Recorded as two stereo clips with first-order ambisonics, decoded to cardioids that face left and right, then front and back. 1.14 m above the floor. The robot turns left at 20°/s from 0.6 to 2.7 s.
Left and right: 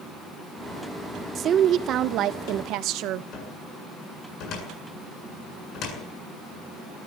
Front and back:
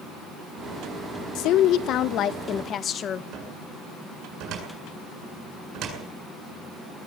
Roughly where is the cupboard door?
Behind left.